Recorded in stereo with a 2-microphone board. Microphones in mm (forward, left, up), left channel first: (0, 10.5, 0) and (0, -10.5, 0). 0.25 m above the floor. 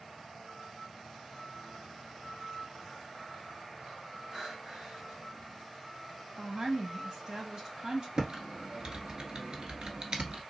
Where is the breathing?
35° right (ahead or behind), 3 m.